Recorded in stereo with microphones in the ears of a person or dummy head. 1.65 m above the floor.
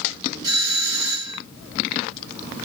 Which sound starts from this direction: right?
A doorbell, at 0.4 s.